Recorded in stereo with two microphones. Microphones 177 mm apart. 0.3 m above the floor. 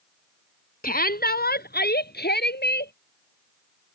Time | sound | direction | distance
0.8 | a shout | 55° left (ahead or behind) | ?